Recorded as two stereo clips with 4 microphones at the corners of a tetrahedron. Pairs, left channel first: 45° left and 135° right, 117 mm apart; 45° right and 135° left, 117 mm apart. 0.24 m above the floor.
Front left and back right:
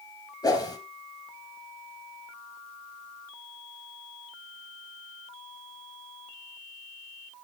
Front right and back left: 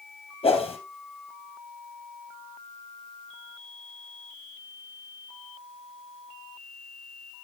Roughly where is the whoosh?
Ahead.